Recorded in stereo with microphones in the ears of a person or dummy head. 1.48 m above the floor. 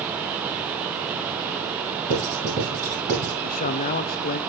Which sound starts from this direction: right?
Writing, at 2.1 s.